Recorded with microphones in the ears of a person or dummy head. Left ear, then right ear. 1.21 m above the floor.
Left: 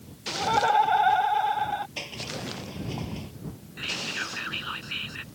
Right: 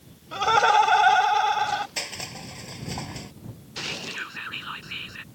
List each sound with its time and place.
0.3 s laughter: 70° right (ahead or behind)
2.0 s crushing: 50° right (ahead or behind)
3.8 s whispering: 10° right (ahead or behind)